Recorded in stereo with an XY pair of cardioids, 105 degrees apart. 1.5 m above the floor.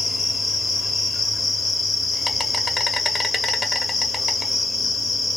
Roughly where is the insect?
Ahead left.